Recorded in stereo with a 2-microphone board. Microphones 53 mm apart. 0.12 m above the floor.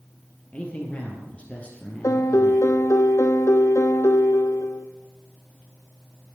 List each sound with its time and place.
0.5 s a man speaking: 25° left (ahead or behind), 3 m
2.0 s a piano: 75° left (ahead or behind), 0.9 m